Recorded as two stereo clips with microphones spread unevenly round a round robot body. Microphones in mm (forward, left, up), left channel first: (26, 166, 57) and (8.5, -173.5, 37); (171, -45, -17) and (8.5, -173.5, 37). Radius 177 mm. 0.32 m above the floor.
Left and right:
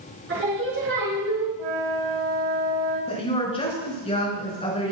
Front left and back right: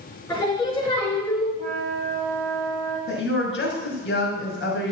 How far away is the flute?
About 6.5 m.